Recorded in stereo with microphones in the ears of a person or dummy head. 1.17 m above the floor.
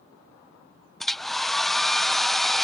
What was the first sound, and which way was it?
A hair dryer, 5° left (ahead or behind).